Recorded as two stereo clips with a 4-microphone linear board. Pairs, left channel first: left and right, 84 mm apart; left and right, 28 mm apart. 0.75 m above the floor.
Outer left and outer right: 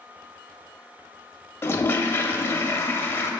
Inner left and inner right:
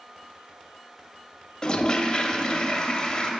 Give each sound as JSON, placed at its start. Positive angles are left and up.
{"t": 1.6, "sound": "a toilet flushing", "side_deg": 30, "distance_m": 0.5}